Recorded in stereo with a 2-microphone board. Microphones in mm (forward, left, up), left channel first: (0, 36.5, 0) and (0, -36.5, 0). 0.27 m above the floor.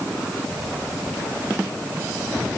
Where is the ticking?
I don't hear ticking.